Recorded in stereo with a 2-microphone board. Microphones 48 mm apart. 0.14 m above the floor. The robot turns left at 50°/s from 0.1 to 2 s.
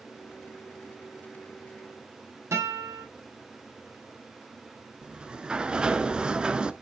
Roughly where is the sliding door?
Centre.